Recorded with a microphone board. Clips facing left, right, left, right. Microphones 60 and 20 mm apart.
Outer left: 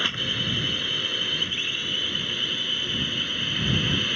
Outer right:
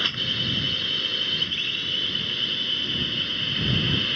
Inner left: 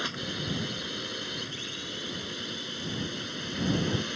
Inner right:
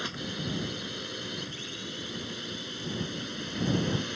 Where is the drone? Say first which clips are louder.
Even, inner left 2 dB; 10° left (ahead or behind); by 4.2 s 5° left (ahead or behind).